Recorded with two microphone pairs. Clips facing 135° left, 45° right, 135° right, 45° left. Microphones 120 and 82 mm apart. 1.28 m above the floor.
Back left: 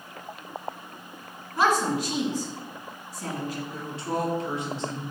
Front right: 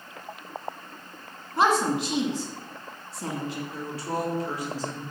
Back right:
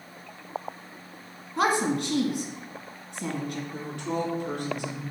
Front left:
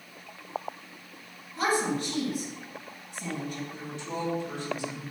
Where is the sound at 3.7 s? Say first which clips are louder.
Back left 2 dB, back right 5 dB; 160° right, 3.5 m.